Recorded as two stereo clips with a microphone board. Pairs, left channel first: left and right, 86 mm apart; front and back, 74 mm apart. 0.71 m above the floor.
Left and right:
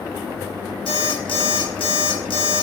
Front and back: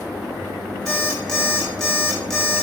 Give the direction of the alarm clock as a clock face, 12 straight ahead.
9 o'clock.